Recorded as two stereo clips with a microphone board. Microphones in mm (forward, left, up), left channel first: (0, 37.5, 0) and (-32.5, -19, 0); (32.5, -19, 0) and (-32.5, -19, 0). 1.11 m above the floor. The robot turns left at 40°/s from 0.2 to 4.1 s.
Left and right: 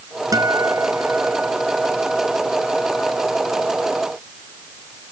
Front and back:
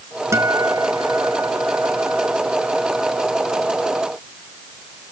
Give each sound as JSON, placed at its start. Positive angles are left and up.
{"t": 0.3, "sound": "a guitar", "azimuth_deg": -140}